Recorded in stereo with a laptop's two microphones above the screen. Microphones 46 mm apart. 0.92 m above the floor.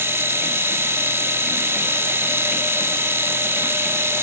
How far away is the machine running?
About 0.8 m.